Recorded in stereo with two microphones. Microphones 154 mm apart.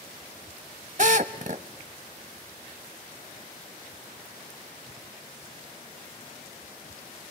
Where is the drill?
50° right (ahead or behind), 0.9 m.